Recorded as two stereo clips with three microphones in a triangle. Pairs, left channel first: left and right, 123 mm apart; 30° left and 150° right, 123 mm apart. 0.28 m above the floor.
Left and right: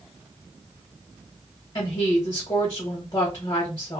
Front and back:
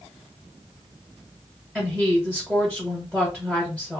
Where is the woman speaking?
130° left, 1.3 m.